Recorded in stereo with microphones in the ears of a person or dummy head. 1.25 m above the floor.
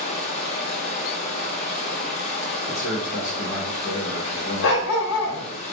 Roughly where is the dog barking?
Left.